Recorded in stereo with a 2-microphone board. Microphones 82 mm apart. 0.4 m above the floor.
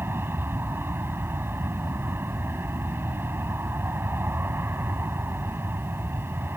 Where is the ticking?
I don't hear ticking.